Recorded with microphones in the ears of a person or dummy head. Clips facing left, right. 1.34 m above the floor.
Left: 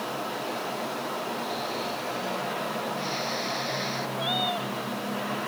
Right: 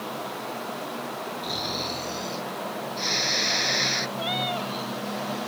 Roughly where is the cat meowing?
Right.